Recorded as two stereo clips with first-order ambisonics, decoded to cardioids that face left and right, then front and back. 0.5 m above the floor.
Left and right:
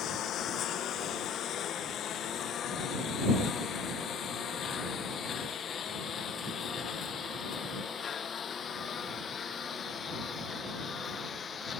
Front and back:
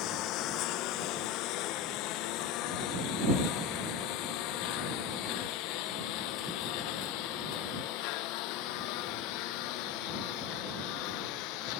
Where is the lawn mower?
35° left; by 11.8 s 20° left.